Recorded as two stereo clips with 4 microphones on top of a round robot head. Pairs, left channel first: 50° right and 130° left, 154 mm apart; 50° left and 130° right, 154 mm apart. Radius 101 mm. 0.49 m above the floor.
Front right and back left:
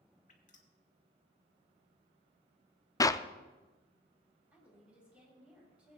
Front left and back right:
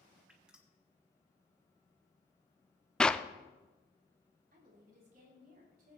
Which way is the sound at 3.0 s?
25° right.